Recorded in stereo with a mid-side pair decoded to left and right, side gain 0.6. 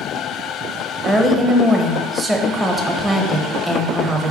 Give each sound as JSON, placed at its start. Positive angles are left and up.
{"t": 1.1, "sound": "a woman speaking", "azimuth_deg": -20, "distance_m": 1.3}